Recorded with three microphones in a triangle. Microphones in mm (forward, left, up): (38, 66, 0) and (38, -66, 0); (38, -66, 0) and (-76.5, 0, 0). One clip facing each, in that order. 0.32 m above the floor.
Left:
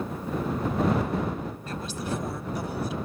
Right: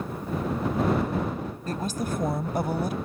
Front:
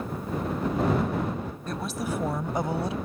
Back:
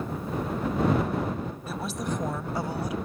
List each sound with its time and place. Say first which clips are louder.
1.7 s a woman speaking: right 4 dB, front 2 dB; 130° right; by 3.0 s 80° right